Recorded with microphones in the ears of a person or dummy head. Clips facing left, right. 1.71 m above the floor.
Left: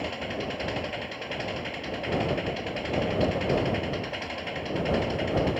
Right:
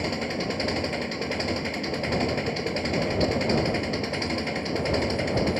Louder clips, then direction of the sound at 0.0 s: Right 4 dB; 55° right (ahead or behind).